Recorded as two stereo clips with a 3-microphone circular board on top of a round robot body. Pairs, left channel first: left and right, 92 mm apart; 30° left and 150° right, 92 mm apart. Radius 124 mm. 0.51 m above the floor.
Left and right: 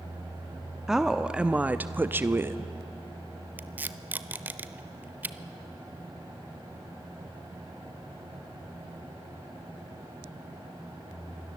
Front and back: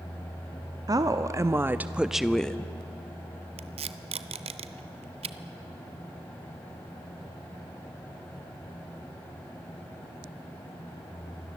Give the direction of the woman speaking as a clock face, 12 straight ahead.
6 o'clock.